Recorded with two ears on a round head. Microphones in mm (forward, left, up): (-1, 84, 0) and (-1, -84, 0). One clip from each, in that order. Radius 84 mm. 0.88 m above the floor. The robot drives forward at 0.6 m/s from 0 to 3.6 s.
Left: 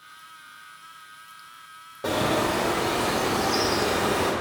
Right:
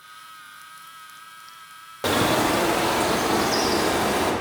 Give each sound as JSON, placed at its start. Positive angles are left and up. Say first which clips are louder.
{"t": 2.0, "sound": "a bird", "louder": "right 3 dB", "side_deg": -60, "distance_m": 0.7}